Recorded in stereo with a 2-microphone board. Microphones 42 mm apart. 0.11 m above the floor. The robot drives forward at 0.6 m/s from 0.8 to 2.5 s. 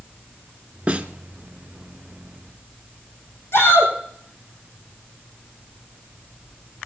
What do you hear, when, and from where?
0.9 s a snare drum: 25° right (ahead or behind), 0.9 m; by 1.1 s 30° right (ahead or behind), 0.9 m
3.5 s a shout: 70° left (ahead or behind), 5 m